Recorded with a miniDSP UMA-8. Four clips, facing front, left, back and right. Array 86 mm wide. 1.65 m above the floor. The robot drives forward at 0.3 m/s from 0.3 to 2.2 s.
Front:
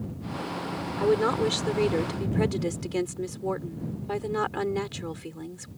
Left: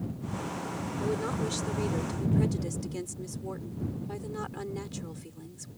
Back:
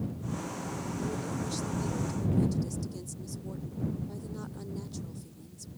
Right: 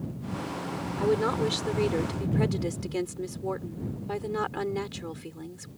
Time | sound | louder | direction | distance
1.0 | a woman speaking | right 7 dB, front 15 dB | 25° right | ?